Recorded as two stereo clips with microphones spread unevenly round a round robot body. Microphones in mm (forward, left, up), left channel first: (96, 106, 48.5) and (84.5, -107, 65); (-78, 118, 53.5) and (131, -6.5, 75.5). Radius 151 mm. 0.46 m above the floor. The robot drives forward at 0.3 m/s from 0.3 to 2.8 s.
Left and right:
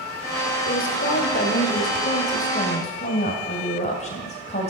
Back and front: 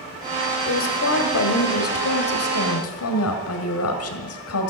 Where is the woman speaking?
135° left, 1.6 m; by 4.7 s 145° left, 2 m.